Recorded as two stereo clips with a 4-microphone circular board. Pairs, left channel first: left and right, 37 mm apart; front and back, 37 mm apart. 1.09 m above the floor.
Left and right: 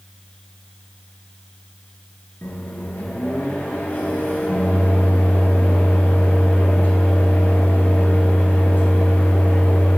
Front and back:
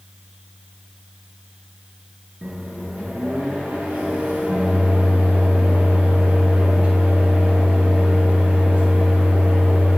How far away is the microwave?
About 0.6 m.